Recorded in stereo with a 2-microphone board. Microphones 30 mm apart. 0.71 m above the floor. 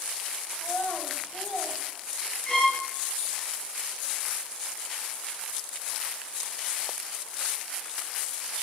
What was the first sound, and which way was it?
A child speaking, 85° left.